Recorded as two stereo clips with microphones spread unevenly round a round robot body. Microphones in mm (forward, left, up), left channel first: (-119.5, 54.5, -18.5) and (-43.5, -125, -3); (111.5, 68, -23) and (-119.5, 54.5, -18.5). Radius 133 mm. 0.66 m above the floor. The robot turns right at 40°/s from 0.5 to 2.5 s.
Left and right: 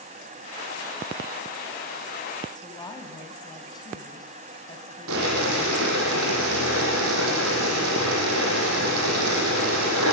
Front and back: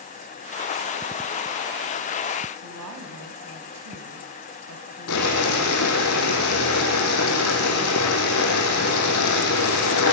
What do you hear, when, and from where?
2.5 s a woman speaking: straight behind, 5 m
5.1 s boiling: 40° right, 9 m